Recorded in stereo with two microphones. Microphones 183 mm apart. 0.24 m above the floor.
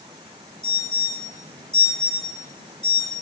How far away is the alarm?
About 4 m.